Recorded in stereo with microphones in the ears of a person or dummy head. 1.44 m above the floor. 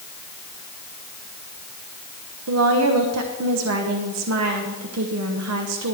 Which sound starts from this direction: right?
A woman speaking, at 2.5 s.